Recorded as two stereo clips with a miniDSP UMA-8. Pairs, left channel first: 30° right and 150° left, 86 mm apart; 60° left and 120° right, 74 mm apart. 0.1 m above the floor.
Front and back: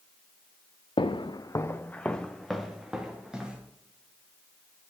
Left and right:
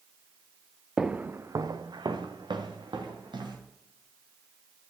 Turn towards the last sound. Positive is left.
turn(degrees=-130)